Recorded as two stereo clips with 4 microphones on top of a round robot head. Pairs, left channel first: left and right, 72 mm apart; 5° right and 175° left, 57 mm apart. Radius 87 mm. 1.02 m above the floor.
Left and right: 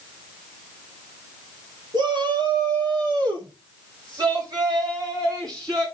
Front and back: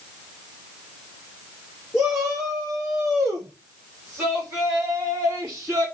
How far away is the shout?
About 2.5 m.